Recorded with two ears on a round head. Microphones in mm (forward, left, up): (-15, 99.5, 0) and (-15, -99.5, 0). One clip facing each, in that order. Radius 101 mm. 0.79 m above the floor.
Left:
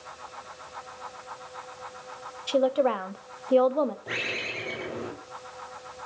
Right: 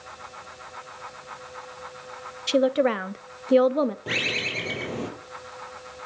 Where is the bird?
50° right (ahead or behind), 4 m.